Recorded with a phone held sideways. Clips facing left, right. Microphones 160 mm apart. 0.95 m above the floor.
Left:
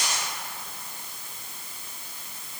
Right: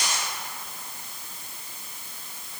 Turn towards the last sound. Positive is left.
No sound to turn to.